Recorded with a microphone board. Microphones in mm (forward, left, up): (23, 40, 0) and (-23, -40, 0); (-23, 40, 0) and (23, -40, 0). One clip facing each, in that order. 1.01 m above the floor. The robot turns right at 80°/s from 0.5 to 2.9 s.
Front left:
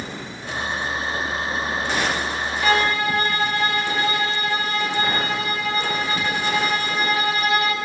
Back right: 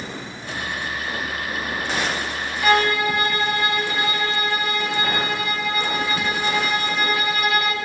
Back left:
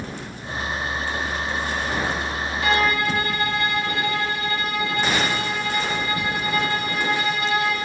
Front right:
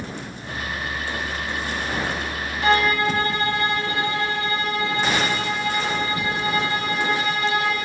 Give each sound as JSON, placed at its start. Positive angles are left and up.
{"t": 2.6, "sound": "a violin", "azimuth_deg": -60, "distance_m": 1.0}